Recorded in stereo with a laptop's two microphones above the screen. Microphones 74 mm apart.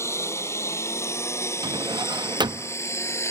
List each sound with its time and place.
0.0 s a lawn mower: 40° left (ahead or behind)
1.6 s a drawer: 85° right